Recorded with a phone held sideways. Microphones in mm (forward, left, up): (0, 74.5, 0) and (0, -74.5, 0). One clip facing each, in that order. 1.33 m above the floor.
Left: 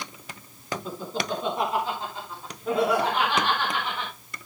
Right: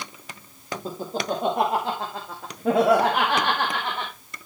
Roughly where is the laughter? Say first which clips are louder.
Right 4 dB; right.